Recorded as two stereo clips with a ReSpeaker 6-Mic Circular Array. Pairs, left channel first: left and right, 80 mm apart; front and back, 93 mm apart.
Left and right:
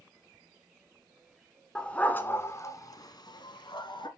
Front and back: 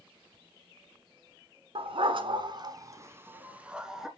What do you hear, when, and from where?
1.8 s a dog barking: 170° left, 1.2 m; by 4.1 s 95° left, 1.5 m